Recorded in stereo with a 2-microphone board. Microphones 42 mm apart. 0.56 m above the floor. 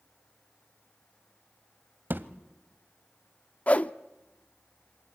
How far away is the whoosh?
About 0.8 m.